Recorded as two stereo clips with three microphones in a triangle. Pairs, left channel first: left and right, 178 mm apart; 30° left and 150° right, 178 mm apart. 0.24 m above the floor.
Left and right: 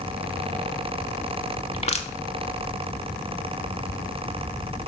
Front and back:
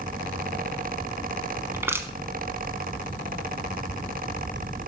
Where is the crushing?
135° left, 0.9 m.